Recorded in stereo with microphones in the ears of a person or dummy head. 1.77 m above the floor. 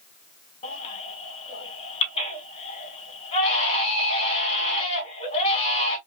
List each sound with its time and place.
0.6 s a baby crying: 40° left (ahead or behind), 2.5 m